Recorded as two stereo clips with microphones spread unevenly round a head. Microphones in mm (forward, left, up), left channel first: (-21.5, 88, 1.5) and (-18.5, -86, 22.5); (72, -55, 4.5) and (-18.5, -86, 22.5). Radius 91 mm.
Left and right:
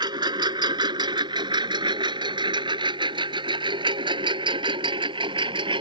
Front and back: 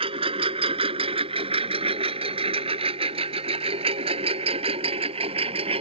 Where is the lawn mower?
150° right.